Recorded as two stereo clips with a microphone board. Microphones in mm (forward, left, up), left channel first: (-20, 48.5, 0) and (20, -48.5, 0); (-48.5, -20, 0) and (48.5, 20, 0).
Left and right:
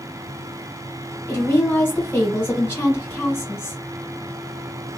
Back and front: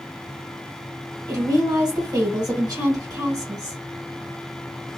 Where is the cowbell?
No cowbell in this recording.